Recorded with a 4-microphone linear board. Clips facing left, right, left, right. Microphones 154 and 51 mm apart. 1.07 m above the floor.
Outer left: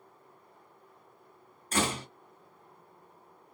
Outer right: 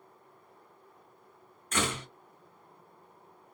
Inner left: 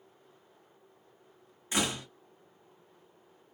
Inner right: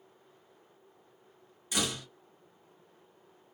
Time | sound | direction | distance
1.7 | a door slam | 35° left (ahead or behind) | 1.1 m